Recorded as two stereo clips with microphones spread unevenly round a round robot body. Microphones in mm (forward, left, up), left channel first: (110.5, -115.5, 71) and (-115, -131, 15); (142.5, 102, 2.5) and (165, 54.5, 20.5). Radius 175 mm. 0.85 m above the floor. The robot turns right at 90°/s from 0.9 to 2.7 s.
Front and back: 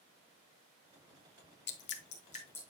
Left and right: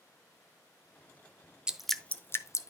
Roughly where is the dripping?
Ahead.